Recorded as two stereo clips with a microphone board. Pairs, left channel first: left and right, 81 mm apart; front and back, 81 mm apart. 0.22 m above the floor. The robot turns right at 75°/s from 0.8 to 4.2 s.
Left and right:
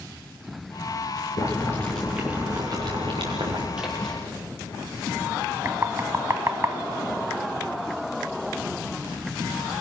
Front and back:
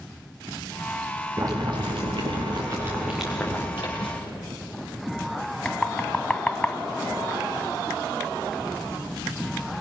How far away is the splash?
About 6.5 m.